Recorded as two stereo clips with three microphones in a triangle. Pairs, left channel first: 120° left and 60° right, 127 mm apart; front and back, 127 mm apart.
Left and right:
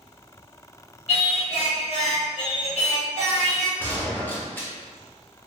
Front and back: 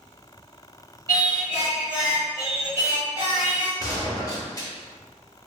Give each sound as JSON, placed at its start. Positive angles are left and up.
{"t": 1.1, "sound": "singing", "azimuth_deg": 125, "distance_m": 1.3}
{"t": 3.8, "sound": "a gunshot", "azimuth_deg": 50, "distance_m": 0.6}